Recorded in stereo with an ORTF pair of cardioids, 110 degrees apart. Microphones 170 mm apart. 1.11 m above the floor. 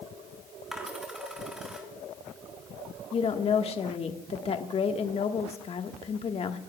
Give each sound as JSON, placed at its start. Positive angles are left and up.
{"t": 0.7, "sound": "a dropped coin", "azimuth_deg": -5, "distance_m": 3.0}
{"t": 3.1, "sound": "a woman speaking", "azimuth_deg": 40, "distance_m": 1.3}